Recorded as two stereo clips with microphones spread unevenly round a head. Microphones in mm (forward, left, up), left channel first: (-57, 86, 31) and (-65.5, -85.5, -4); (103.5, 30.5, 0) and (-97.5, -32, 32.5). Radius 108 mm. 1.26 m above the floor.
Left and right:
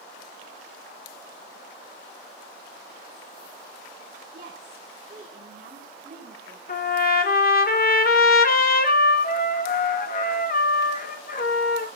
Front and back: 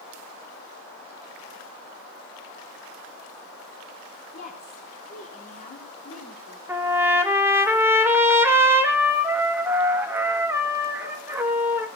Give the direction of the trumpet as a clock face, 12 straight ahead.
8 o'clock.